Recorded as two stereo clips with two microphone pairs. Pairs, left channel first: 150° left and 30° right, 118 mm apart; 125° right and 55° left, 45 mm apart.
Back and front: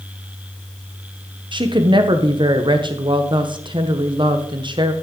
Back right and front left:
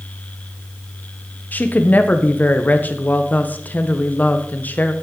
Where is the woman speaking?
75° right, 0.9 m.